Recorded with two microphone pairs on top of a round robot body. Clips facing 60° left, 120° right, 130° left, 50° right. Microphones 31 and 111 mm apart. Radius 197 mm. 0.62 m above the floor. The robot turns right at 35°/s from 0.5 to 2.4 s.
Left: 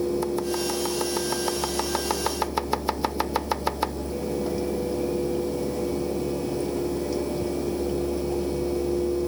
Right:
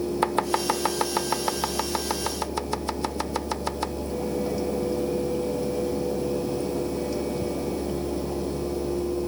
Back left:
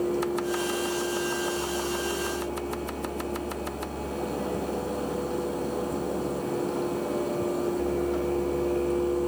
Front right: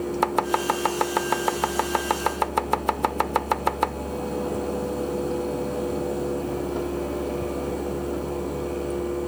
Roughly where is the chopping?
Right.